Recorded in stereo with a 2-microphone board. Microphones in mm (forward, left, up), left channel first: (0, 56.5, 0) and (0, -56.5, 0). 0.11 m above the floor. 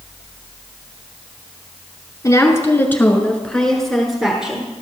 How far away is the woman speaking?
About 1.4 m.